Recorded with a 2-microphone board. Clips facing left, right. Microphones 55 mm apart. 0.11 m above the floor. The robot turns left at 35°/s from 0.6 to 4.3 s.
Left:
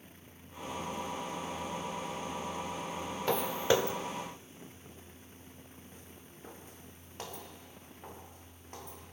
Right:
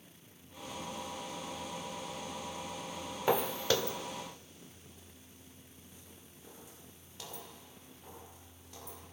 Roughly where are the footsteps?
Centre.